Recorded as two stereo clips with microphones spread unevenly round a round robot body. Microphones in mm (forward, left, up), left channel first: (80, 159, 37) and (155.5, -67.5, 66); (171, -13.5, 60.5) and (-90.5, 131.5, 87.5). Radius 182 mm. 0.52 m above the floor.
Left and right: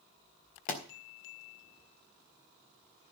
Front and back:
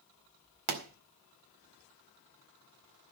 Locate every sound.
0.7 s a pop: 165° left, 2.5 m